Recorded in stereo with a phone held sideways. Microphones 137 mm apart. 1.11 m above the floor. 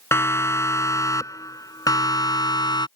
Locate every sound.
0.1 s a siren: 20° left (ahead or behind); by 2.9 s 30° left (ahead or behind)